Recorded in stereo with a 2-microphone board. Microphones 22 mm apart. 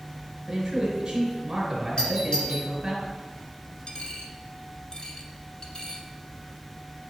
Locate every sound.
0.5 s a man speaking: 15° right (ahead or behind), 3 m
2.0 s a doorbell: 50° left (ahead or behind), 3.5 m
3.9 s a dropped coin: 40° left (ahead or behind), 1.0 m